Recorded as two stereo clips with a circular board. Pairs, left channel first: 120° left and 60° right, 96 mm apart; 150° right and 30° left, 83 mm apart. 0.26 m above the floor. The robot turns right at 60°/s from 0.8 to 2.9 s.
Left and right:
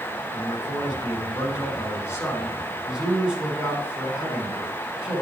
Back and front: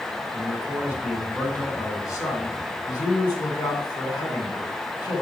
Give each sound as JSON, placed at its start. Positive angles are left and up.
{"t": 0.3, "sound": "a man speaking", "azimuth_deg": 95, "distance_m": 3.0}